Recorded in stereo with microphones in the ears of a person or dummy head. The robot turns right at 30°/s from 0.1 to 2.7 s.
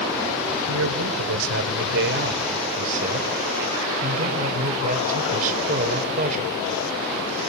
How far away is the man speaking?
About 5 m.